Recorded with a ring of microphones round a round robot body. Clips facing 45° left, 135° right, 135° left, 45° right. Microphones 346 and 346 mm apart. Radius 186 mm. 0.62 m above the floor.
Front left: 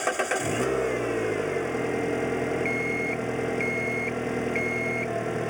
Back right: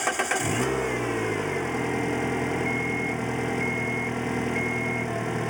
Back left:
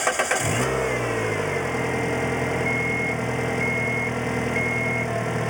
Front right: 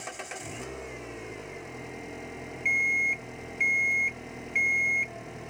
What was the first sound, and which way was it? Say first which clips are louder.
An engine running: front left 1 dB, back left 16 dB; 150° left.